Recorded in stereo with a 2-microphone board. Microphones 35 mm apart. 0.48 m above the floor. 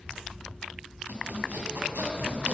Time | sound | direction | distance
1.1 | sawing | 70° right (ahead or behind) | 3 m